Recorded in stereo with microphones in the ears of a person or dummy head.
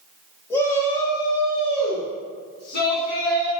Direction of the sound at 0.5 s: 10° left (ahead or behind).